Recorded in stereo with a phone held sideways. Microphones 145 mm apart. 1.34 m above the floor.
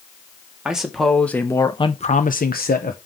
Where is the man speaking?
5° right (ahead or behind), 1.5 m; by 3.0 s 70° left (ahead or behind), 1.0 m.